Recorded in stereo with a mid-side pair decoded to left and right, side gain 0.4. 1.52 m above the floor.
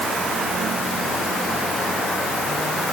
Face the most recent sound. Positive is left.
No sound to turn to.